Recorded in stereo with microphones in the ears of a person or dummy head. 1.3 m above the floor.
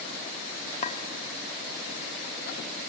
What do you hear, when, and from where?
0.8 s a clink: 30° left (ahead or behind), 0.6 m